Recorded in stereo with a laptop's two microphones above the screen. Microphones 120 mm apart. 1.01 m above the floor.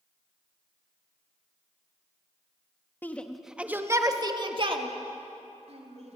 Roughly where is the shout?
Centre.